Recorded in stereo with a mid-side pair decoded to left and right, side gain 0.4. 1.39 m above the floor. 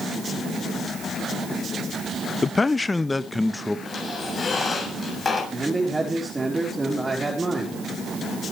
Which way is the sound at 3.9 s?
40° left.